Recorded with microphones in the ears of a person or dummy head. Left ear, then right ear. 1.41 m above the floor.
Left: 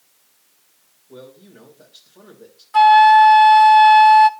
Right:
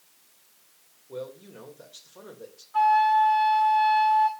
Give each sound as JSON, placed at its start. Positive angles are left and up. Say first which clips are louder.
{"t": 1.1, "sound": "a man speaking", "louder": "right 4 dB", "side_deg": -70, "distance_m": 2.5}
{"t": 2.7, "sound": "a flute", "louder": "left 11 dB", "side_deg": 45, "distance_m": 0.6}